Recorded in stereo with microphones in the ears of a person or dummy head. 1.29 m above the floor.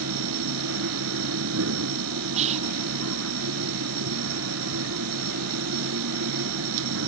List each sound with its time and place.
0.0 s a machine running: 75° right (ahead or behind)
2.4 s whispering: 30° right (ahead or behind)